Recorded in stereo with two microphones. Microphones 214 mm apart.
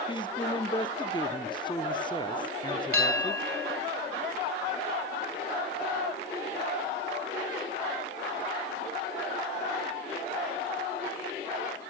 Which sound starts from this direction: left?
A man speaking, at 0.1 s.